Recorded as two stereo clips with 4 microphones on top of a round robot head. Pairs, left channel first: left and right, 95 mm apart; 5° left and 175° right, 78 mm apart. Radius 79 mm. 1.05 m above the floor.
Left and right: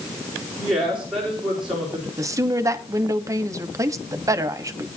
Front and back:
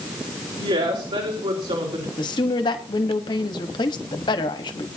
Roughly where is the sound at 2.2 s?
Ahead right.